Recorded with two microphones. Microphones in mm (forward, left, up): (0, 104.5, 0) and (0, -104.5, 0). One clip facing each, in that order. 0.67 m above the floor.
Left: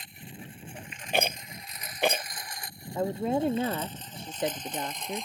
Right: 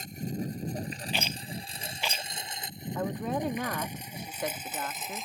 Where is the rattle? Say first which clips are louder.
Left 11 dB; 55° left (ahead or behind).